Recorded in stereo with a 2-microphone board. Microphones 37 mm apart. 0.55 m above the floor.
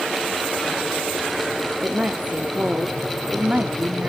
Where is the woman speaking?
40° right (ahead or behind), 0.8 m.